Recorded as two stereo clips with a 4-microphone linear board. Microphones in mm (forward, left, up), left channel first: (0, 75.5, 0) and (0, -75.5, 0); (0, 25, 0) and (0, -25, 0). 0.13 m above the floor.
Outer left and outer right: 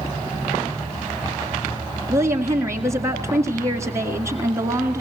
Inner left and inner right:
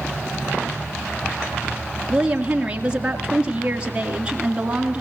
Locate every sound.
2.1 s a woman speaking: 20° right (ahead or behind), 1.8 m